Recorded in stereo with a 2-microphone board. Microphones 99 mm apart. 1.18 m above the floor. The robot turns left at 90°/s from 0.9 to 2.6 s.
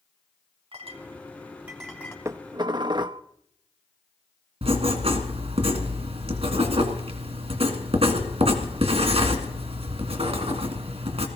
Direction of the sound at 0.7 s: 85° right.